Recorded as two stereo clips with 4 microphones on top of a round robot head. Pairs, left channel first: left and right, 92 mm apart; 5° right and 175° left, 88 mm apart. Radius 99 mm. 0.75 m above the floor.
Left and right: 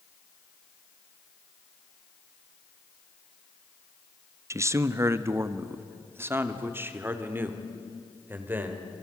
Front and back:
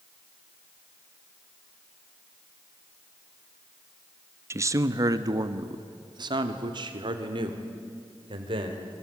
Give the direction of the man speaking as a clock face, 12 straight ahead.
5 o'clock.